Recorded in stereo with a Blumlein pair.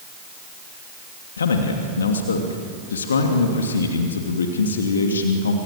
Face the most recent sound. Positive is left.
turn(degrees=70)